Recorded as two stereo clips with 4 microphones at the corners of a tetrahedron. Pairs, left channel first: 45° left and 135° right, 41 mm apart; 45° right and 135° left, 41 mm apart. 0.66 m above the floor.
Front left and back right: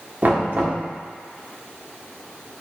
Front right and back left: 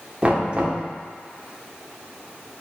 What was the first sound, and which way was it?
Knocking, 170° right.